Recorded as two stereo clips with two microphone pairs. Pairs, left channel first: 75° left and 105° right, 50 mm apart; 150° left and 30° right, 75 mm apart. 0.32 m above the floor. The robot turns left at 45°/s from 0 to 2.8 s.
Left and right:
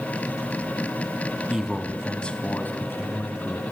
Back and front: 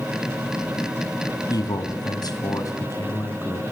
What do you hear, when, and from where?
1.5 s a man speaking: 175° left, 2 m; by 3.6 s 115° left, 2 m